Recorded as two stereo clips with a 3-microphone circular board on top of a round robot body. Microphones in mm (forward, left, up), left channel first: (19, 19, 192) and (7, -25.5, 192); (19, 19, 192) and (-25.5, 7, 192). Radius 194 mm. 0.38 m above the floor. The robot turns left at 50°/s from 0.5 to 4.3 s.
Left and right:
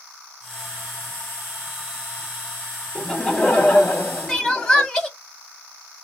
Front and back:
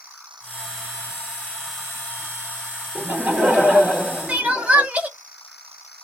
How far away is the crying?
About 1.8 m.